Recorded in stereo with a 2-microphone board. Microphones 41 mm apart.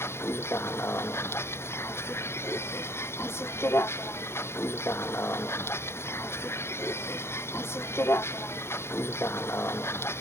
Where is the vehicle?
70° left (ahead or behind).